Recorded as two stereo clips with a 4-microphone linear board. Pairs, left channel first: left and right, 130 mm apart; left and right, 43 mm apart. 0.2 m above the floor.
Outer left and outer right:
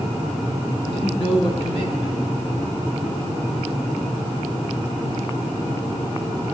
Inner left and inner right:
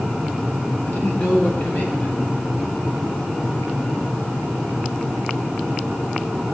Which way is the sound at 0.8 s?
50° left (ahead or behind).